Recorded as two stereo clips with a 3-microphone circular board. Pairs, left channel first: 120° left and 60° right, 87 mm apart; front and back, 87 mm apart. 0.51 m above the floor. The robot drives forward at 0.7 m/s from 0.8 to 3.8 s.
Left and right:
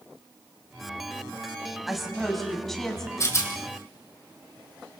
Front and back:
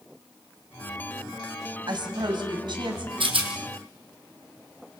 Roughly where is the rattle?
Behind.